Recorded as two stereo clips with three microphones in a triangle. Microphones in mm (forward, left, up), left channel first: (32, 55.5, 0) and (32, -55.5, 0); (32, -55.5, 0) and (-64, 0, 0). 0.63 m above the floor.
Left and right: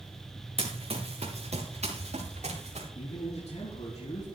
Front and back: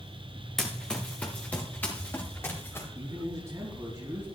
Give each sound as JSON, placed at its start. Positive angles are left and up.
{"t": 0.6, "sound": "running footsteps", "azimuth_deg": -115, "distance_m": 2.5}
{"t": 3.0, "sound": "a man speaking", "azimuth_deg": 90, "distance_m": 4.5}